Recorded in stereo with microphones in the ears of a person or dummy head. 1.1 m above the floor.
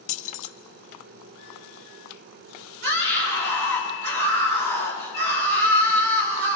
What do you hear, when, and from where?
0.1 s keys jangling: 45° left (ahead or behind), 1.2 m
2.8 s a scream: 60° right (ahead or behind), 5.5 m